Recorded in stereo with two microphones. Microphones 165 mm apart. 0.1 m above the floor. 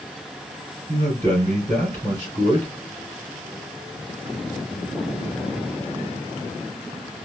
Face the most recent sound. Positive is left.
turn(degrees=-25)  # may be behind; listen again after turning